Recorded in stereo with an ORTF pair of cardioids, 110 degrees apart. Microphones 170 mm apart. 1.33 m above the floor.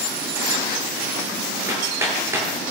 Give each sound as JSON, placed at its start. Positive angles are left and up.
{"t": 1.7, "sound": "hammering", "azimuth_deg": -15, "distance_m": 9.5}